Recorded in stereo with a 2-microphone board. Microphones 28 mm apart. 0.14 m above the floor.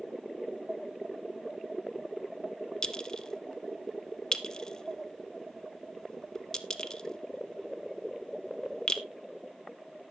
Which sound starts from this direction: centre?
A clink, at 2.8 s.